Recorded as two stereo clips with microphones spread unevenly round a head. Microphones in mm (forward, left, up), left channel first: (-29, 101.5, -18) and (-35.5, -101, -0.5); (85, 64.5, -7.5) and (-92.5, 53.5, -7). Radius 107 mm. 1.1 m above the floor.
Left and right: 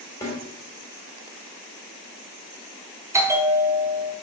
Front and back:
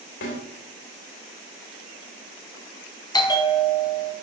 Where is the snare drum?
10° left, 2.5 m.